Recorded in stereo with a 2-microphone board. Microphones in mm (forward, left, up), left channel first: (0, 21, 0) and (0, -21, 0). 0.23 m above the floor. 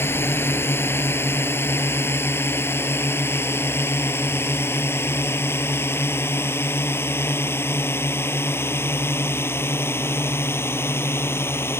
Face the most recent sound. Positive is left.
turn(degrees=75)  # may be behind; listen again after turning